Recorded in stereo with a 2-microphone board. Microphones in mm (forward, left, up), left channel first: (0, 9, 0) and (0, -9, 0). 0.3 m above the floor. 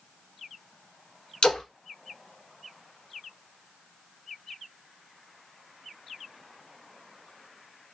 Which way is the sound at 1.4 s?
55° left (ahead or behind).